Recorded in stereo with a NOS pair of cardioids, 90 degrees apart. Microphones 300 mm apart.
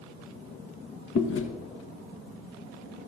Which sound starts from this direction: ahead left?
Chewing, at 1.1 s.